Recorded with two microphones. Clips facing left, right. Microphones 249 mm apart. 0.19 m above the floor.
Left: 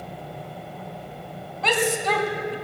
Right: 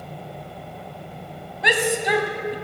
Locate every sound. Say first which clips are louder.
1.6 s a shout: right 1 dB; 15° right (ahead or behind), 1.1 m